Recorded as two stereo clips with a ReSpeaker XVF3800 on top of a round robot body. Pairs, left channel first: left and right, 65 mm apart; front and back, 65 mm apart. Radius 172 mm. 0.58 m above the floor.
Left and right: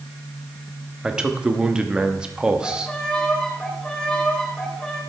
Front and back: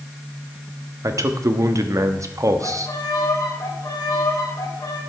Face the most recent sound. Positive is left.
turn(degrees=10)